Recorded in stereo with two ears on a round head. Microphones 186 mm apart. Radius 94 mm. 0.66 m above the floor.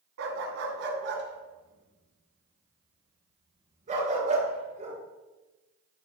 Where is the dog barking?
70° right (ahead or behind), 2.5 m; by 5.0 s 35° right (ahead or behind), 5 m.